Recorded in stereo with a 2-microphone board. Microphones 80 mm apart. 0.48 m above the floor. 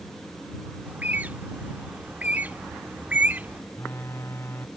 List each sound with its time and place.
0.8 s a bird: 20° right (ahead or behind)
3.7 s a phone buzzing: 35° left (ahead or behind)